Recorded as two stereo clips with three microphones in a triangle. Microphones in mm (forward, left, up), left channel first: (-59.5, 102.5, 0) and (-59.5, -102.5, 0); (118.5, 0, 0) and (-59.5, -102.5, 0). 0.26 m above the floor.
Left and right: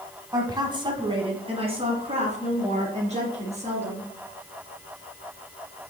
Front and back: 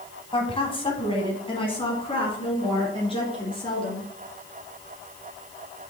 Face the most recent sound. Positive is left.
turn(degrees=-35)